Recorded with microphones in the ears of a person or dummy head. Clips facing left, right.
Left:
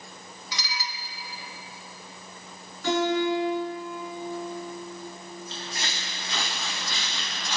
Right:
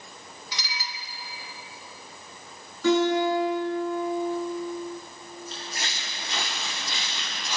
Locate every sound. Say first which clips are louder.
0.5 s dishes clattering: left 3 dB; 80° left, 3.5 m
2.8 s a guitar: right 3 dB; 80° right, 10 m
5.5 s footsteps: left 1 dB; 40° right (ahead or behind), 5.5 m; by 7.6 s 10° right (ahead or behind), 3.5 m